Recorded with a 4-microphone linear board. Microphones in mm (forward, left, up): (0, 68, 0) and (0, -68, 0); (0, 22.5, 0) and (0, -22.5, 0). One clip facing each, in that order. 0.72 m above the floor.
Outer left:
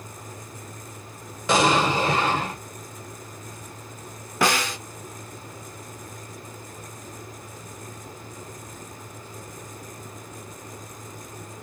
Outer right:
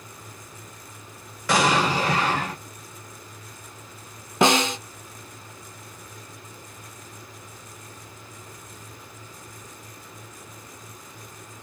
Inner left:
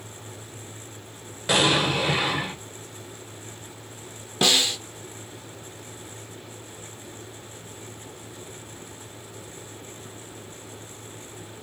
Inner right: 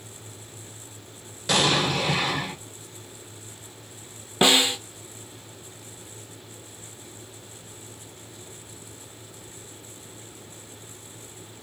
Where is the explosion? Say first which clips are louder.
Outer left 1 dB, inner left 1 dB; 20° left (ahead or behind), 1.9 m.